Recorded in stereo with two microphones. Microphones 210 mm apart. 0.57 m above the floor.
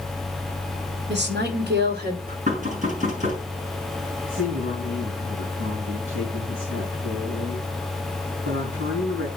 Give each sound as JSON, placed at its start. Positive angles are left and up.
{"t": 1.1, "sound": "a woman speaking", "side_deg": -55, "distance_m": 2.0}
{"t": 2.5, "sound": "knocking", "side_deg": -40, "distance_m": 6.5}
{"t": 4.3, "sound": "a woman speaking", "side_deg": -70, "distance_m": 4.5}